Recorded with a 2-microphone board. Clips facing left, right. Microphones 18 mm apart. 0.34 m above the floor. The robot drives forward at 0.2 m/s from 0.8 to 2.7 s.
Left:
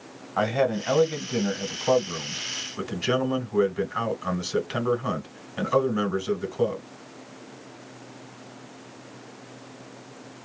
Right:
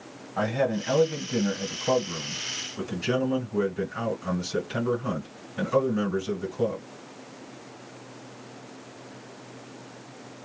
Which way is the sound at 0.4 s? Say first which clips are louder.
Left 2 dB; 40° left (ahead or behind).